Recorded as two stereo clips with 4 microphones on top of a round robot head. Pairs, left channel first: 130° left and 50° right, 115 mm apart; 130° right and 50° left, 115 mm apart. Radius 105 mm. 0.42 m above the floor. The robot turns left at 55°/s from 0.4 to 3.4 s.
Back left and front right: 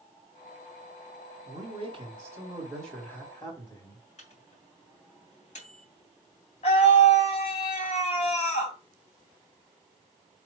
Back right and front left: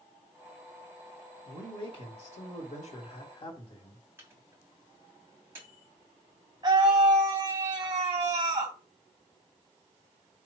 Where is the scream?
105° left, 3.5 m.